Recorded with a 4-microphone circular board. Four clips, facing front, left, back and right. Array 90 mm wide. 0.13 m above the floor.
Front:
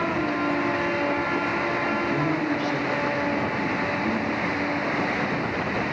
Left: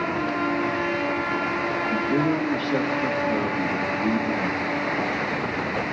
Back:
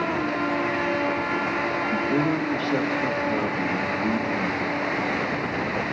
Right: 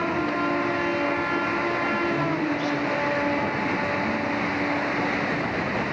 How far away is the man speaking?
About 4 m.